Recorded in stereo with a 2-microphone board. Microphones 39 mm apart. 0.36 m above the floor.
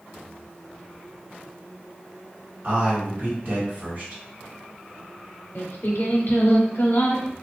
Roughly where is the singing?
Left.